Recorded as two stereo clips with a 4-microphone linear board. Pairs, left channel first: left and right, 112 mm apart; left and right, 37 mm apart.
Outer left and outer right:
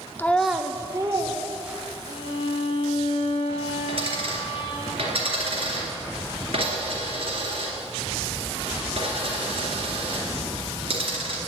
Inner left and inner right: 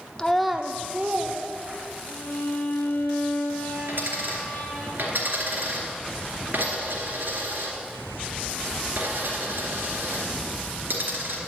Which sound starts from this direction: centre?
A child speaking, at 0.2 s.